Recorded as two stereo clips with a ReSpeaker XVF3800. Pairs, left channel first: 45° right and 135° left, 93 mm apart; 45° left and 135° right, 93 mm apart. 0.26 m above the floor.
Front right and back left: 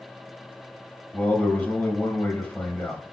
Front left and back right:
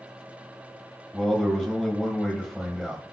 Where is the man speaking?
25° right, 0.9 m.